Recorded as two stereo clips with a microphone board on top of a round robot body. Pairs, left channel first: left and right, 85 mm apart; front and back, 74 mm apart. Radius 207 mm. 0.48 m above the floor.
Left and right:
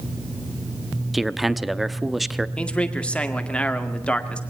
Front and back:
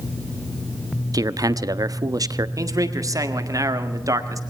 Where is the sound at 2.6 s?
165° left, 2 m.